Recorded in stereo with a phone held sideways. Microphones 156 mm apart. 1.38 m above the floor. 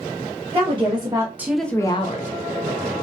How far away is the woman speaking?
About 1.0 m.